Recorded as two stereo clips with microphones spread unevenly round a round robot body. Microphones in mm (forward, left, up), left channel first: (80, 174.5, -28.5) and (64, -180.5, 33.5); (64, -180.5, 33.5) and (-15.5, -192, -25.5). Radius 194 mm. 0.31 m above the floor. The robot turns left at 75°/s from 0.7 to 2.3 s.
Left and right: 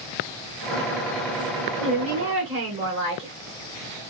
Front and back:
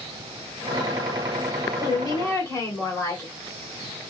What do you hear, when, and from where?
1.8 s a woman speaking: 60° right, 1.2 m; by 3.3 s 100° right, 1.2 m